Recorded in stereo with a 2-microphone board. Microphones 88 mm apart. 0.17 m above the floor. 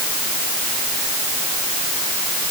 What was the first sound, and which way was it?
Only background noise.